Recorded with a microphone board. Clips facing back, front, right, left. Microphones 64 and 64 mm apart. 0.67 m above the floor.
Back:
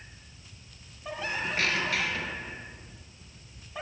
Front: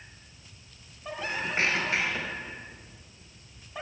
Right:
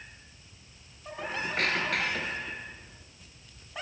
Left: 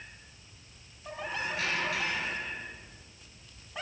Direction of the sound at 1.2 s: 60° right.